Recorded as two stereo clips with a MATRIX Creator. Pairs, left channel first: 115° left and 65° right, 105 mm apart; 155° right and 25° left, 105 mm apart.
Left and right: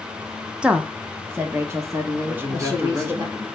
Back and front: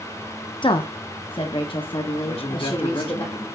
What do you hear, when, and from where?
0.6 s a woman speaking: 145° right, 0.7 m; by 3.2 s 125° right, 1.9 m
2.2 s a man speaking: 135° right, 1.7 m